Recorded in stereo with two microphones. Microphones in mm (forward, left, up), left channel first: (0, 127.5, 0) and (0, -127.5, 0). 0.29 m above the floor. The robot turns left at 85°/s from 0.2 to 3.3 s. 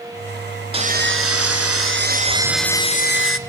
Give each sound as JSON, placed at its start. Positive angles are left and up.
{"t": 0.7, "sound": "sawing", "azimuth_deg": -25, "distance_m": 0.9}